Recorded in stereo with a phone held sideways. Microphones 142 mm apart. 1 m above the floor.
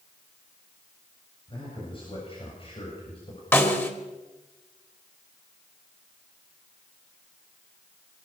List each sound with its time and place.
1.5 s a man speaking: 40° left (ahead or behind), 7 m; by 3.4 s 45° left (ahead or behind), 6 m
3.5 s a snare drum: 15° left (ahead or behind), 3 m